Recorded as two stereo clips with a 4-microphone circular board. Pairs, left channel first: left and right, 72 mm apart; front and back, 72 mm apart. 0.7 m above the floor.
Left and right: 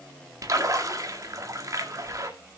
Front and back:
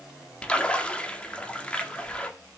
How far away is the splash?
About 1.9 m.